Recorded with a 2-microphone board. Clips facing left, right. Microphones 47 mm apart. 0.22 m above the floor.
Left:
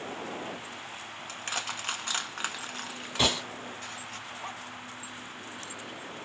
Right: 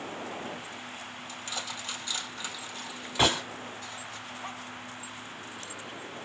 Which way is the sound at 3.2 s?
25° right (ahead or behind).